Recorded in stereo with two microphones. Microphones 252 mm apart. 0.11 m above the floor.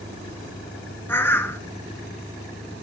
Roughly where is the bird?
Centre.